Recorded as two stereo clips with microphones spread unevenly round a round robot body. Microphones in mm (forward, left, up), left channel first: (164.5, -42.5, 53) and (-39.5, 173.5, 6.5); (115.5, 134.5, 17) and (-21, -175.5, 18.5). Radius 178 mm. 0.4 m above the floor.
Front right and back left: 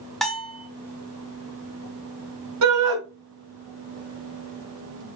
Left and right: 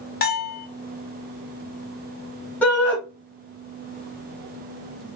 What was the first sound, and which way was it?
A bell, 60° left.